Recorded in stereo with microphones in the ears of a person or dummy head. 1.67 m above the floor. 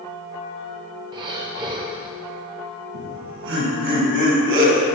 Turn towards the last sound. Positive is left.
turn(degrees=-65)  # may be behind; listen again after turning